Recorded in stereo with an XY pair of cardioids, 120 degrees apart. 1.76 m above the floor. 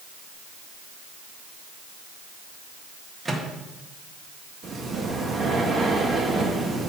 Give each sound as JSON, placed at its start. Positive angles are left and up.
{"t": 3.2, "sound": "a microwave", "azimuth_deg": -20, "distance_m": 1.5}
{"t": 4.6, "sound": "breathing", "azimuth_deg": -35, "distance_m": 1.6}